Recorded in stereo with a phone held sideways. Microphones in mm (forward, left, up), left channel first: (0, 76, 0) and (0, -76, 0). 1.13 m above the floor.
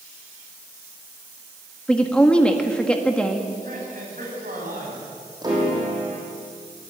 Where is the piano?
25° right (ahead or behind), 8 m.